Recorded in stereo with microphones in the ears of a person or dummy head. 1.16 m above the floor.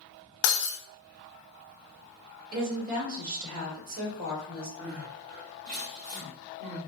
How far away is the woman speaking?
About 1.7 m.